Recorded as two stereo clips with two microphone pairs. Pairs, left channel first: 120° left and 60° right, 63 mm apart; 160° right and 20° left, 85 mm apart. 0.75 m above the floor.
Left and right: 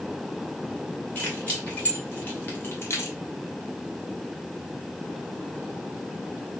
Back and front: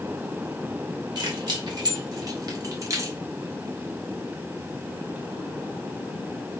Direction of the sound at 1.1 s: 55° left.